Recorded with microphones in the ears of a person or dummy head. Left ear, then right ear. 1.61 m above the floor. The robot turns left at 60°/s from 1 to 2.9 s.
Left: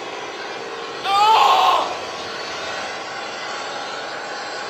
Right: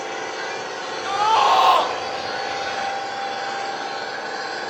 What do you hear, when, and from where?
0.0 s an engine running: 90° right, 7 m; by 4.7 s 155° left, 7 m
1.0 s a scream: 35° left, 1.1 m; by 1.9 s 20° right, 1.1 m